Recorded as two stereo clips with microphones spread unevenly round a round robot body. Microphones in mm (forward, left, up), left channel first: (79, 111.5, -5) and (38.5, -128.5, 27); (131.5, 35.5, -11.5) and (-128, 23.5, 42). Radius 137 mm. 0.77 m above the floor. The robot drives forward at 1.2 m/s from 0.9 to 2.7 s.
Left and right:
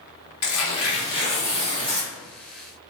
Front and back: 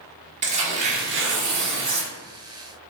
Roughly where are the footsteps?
No footsteps in this recording.